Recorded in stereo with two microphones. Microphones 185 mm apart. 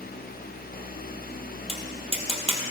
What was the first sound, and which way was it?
Tapping, 30° right (ahead or behind).